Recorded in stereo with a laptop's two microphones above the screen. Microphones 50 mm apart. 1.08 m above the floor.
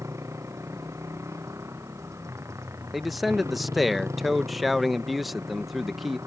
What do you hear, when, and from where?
0.0 s a motorcycle: 80° right
2.9 s a man speaking: centre (ahead or behind)